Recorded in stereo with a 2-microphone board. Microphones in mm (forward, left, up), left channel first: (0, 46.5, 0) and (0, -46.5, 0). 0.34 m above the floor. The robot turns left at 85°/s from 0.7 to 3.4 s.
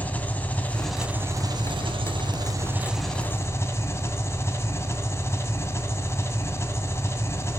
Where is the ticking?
I don't hear ticking.